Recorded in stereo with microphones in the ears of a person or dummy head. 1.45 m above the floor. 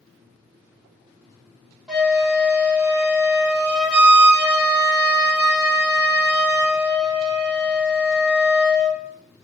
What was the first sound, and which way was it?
A flute, 5° right (ahead or behind).